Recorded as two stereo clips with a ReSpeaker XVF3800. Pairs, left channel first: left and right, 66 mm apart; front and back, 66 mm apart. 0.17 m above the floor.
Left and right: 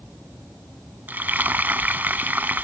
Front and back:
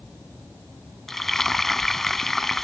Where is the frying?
80° right.